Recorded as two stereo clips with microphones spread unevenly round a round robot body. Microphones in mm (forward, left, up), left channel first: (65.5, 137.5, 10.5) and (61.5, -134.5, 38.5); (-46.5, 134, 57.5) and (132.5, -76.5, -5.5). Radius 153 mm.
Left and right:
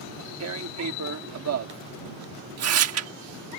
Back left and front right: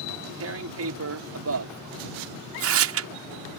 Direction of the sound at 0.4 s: 65° right.